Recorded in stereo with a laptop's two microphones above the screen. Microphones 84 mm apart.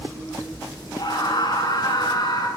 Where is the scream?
55° left (ahead or behind), 9.5 m; by 2.5 s 50° left (ahead or behind), 9 m.